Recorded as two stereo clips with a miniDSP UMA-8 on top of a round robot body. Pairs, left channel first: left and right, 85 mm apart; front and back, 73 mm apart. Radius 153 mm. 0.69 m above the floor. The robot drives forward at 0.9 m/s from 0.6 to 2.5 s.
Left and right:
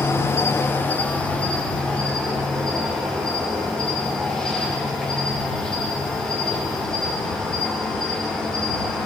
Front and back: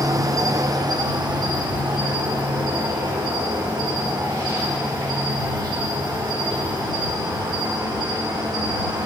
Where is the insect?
150° left, 0.8 m; by 9.1 s 170° left, 2.5 m.